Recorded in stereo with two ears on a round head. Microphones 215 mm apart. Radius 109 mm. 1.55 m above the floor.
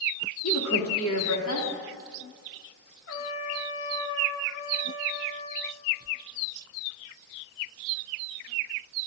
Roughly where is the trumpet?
Left.